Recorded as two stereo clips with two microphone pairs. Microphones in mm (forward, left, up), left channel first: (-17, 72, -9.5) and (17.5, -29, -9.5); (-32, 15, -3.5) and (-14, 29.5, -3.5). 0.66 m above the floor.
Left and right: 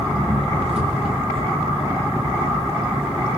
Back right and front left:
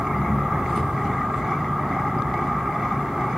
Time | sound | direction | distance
0.0 | an engine running | 45° right | 6 m